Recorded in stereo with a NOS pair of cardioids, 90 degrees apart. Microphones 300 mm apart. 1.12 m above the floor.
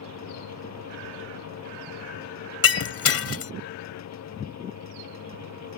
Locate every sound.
0.0 s a fan: 60° left
2.6 s breaking glass: 50° left